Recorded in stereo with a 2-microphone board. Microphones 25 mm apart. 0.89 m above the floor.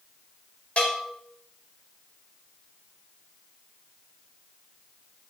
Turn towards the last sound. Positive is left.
turn(degrees=50)  # may be behind; listen again after turning